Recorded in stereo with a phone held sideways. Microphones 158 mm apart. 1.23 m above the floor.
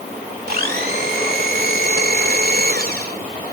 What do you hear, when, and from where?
0.5 s a blender: 70° right (ahead or behind)